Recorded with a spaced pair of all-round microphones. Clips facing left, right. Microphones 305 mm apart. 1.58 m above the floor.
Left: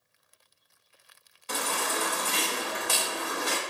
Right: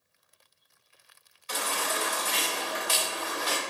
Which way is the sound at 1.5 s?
60° left (ahead or behind).